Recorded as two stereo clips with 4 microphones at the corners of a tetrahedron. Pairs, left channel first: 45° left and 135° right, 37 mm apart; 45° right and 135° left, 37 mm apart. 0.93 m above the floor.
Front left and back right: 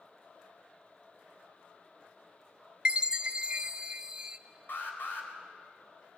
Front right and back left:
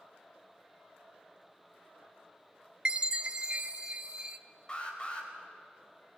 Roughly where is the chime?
Behind.